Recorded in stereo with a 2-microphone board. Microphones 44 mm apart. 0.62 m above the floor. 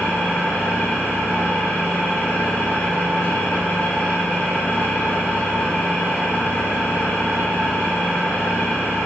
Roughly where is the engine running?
Left.